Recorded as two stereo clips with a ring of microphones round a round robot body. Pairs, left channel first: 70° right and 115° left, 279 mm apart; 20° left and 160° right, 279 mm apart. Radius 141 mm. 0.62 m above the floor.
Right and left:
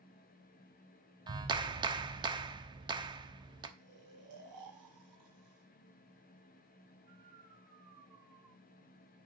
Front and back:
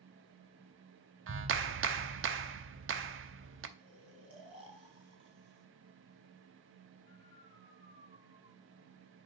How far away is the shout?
No shout in this recording.